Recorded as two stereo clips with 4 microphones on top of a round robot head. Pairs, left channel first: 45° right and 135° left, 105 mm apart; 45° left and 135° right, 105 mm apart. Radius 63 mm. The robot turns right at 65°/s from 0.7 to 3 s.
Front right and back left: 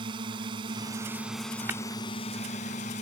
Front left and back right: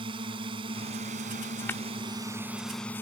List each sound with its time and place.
0.0 s a drone: straight behind; by 3.0 s 30° right
1.7 s tapping: 90° left; by 1.8 s 100° left